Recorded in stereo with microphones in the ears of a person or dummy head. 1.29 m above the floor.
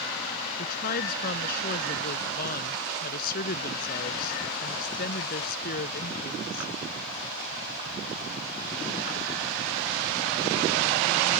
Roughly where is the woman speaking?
Left.